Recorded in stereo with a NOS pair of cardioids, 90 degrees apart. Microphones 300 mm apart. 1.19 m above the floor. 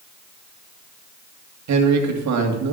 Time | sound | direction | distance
1.7 | a man speaking | 70° right | 2.5 m